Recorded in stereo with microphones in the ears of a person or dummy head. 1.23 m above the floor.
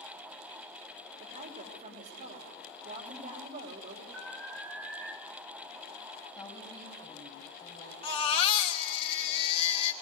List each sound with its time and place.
1.2 s a woman speaking: 45° right (ahead or behind), 4 m
4.1 s an alarm: 80° right, 3 m
6.3 s a woman speaking: 20° left (ahead or behind), 8.5 m
8.0 s a baby crying: 35° left (ahead or behind), 2.5 m